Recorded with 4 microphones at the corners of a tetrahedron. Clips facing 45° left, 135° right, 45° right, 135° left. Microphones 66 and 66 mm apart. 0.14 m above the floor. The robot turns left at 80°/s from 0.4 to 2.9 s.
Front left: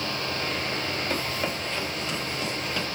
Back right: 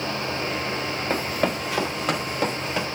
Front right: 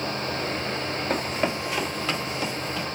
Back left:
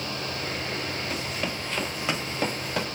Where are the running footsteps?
85° right, 1.1 m; by 2.9 s 150° left, 3 m.